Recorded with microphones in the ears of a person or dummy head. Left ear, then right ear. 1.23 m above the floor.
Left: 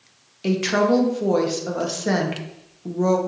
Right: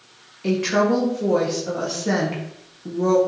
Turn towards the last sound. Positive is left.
turn(degrees=25)  # may be behind; listen again after turning